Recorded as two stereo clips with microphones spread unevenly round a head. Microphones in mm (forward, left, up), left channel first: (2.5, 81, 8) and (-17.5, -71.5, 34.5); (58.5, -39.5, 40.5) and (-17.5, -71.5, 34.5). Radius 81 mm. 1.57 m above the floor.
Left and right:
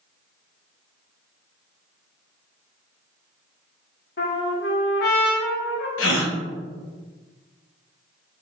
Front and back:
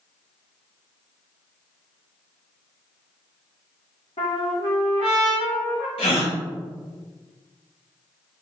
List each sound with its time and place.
4.2 s a trumpet: 55° left, 1.1 m
6.0 s a gasp: 70° left, 0.8 m